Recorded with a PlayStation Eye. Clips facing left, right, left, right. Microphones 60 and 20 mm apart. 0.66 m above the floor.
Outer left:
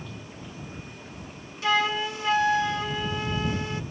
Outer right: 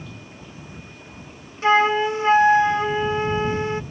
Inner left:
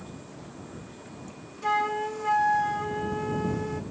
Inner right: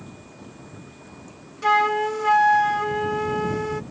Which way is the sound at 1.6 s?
35° right (ahead or behind).